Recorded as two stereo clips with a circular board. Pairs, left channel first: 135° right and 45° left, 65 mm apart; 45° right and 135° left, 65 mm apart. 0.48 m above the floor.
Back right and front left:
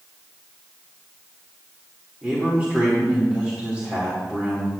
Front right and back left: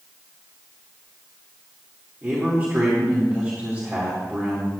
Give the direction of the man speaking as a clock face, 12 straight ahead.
9 o'clock.